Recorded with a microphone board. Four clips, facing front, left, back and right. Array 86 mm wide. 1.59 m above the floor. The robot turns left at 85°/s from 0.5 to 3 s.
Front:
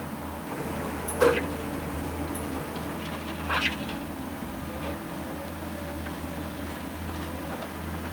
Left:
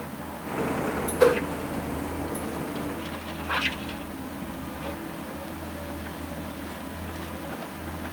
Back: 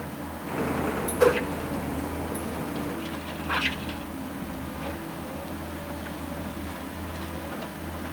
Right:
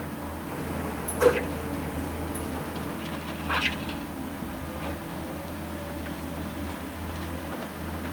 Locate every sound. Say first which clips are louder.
1.2 s a whoosh: left 2 dB, back 1 dB; 95° left, 1.6 m; by 1.4 s 80° left, 1.6 m